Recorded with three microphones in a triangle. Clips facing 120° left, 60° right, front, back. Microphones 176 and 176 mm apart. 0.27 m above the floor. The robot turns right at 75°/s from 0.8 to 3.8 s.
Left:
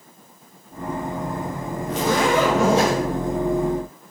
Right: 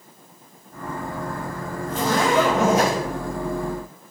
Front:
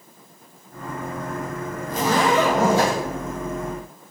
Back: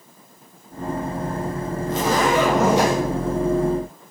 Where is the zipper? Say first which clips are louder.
Left 1 dB, even; 110° left, 1.5 m; by 3.0 s 165° right, 1.5 m.